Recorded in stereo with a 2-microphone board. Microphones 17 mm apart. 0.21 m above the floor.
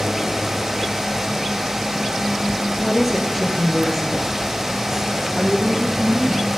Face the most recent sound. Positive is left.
turn(degrees=10)  # may be behind; listen again after turning